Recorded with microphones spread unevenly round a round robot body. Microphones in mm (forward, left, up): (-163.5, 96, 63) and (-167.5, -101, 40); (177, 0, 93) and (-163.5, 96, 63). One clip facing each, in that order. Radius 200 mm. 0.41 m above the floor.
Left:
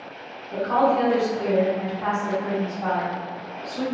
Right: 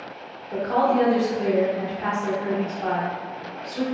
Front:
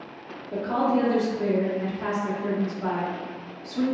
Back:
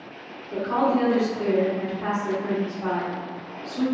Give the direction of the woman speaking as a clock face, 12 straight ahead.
2 o'clock.